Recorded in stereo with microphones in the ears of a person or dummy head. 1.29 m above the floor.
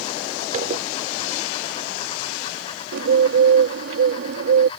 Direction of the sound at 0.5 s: 50° right (ahead or behind).